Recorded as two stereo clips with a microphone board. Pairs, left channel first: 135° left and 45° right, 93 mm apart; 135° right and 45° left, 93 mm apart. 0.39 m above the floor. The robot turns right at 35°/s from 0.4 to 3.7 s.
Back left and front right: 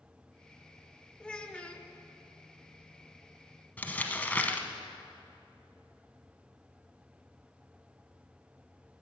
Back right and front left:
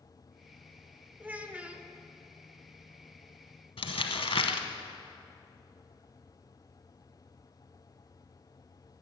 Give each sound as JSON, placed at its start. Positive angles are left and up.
{"t": 1.2, "sound": "a child speaking", "azimuth_deg": 70, "distance_m": 0.8}
{"t": 3.8, "sound": "crumpling", "azimuth_deg": -150, "distance_m": 0.9}